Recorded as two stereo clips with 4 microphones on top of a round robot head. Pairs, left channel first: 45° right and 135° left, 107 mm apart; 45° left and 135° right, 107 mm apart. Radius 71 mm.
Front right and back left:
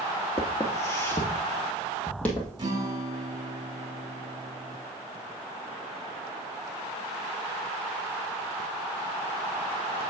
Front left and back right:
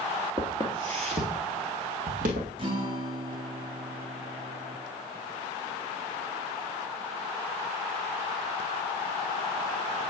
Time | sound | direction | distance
0.4 | footsteps | 90° right | 1.5 m
2.6 | a guitar | 175° right | 1.3 m